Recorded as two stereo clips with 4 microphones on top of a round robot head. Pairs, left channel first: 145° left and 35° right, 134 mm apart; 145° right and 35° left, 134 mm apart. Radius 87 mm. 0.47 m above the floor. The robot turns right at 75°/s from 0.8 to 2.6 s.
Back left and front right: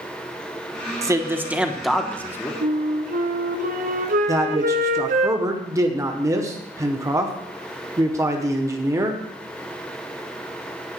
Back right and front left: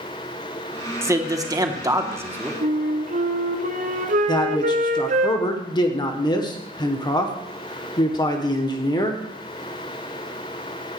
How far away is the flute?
About 1.2 m.